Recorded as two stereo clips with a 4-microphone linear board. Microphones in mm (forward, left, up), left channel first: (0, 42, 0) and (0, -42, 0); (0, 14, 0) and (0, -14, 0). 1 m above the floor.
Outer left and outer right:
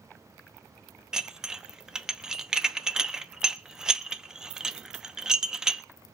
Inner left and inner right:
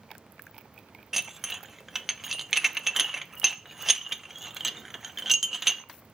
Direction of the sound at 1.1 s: 10° right (ahead or behind).